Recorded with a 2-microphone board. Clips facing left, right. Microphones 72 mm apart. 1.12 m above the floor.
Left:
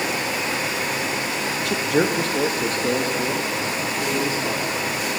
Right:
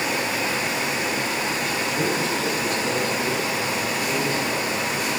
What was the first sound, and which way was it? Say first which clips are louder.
A man speaking: left 7 dB; 70° left (ahead or behind).